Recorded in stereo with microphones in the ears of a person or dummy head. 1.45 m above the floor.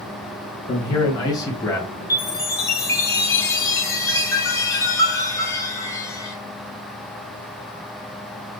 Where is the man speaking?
25° left (ahead or behind), 1.7 m; by 1.9 s 10° left (ahead or behind), 1.1 m.